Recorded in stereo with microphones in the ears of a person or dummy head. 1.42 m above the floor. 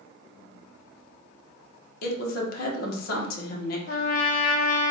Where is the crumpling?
I don't hear crumpling.